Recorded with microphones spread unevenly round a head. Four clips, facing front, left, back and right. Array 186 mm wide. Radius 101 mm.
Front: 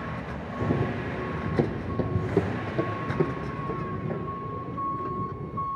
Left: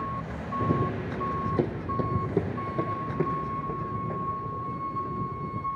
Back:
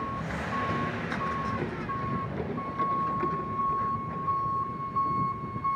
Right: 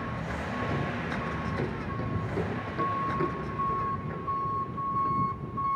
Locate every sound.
0.6 s running footsteps: 50° left, 3 m; by 5.7 s 25° left, 7.5 m